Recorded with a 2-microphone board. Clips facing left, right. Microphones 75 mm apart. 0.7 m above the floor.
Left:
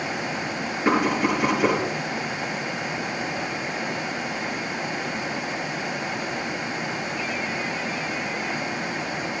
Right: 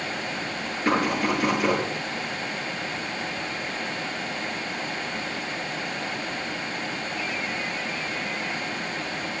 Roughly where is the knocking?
Centre.